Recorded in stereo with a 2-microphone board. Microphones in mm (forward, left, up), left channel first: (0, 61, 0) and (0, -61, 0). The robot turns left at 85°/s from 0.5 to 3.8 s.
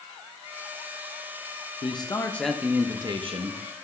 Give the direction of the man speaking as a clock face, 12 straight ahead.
10 o'clock.